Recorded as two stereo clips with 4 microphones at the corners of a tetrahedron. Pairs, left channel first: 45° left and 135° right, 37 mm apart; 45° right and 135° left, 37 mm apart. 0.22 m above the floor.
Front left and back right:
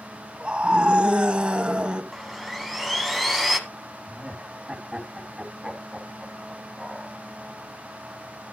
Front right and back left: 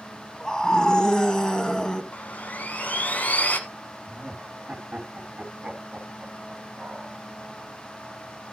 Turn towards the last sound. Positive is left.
turn(degrees=165)